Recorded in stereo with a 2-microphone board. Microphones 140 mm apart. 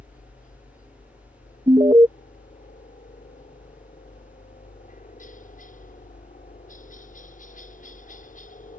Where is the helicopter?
70° left (ahead or behind).